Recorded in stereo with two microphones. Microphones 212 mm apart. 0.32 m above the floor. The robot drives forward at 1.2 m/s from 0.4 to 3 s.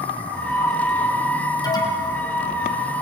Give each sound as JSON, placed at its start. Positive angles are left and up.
{"t": 1.6, "sound": "an alarm", "side_deg": 20, "distance_m": 4.0}